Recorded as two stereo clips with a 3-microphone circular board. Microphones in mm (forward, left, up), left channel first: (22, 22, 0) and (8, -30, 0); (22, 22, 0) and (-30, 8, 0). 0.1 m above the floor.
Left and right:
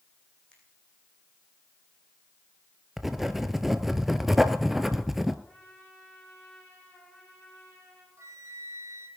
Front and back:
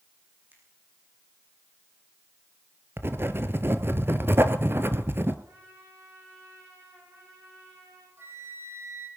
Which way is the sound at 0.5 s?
145° left.